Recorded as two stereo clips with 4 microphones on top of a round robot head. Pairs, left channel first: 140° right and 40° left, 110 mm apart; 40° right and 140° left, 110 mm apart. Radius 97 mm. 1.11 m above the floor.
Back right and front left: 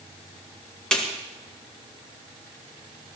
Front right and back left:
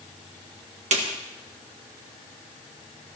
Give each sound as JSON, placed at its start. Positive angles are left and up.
{"t": 0.9, "sound": "a snare drum", "azimuth_deg": 140, "distance_m": 2.0}